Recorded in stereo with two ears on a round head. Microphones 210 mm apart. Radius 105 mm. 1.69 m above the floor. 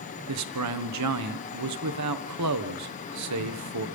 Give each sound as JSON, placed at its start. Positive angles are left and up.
{"t": 0.3, "sound": "a man speaking", "side_deg": -75, "distance_m": 1.5}